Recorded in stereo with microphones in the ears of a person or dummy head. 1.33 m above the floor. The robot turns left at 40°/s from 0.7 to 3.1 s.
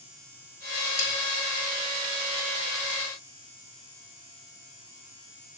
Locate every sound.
1.0 s a snare drum: 60° left (ahead or behind), 3 m; by 1.1 s 65° left (ahead or behind), 3 m